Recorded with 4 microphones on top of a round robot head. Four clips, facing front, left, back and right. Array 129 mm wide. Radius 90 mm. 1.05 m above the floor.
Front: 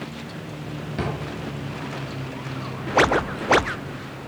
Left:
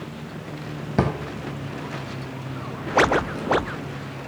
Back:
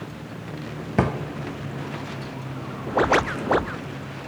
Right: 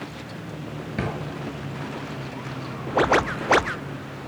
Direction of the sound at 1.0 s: 140° left.